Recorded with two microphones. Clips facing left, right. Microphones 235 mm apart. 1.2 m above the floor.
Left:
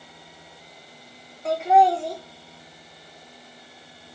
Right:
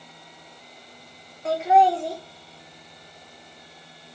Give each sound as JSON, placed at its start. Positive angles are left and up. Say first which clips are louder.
{"t": 1.4, "sound": "laughter", "louder": "even", "side_deg": 0, "distance_m": 0.8}